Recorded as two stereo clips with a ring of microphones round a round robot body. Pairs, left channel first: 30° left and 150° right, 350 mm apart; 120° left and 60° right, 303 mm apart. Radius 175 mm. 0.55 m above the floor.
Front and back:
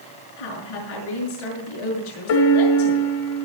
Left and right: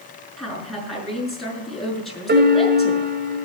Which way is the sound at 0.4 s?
30° left.